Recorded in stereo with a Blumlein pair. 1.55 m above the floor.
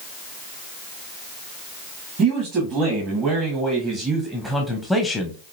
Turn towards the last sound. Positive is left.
turn(degrees=20)